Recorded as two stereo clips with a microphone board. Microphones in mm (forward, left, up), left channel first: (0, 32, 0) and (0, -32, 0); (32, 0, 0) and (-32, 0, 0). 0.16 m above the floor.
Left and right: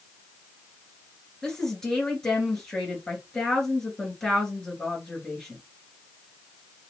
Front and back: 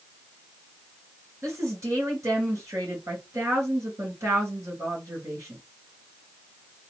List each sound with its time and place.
1.4 s a woman speaking: 170° left, 2.5 m